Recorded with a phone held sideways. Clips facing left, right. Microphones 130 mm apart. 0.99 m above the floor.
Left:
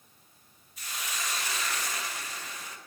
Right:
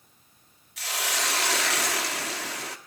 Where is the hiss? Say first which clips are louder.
Right 7 dB; 85° right, 1.2 m.